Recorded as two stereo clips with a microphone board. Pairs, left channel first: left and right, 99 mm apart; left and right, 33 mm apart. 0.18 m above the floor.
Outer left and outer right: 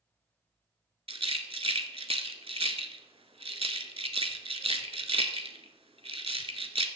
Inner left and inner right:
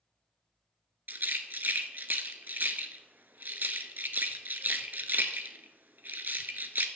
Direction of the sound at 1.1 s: 75° right (ahead or behind).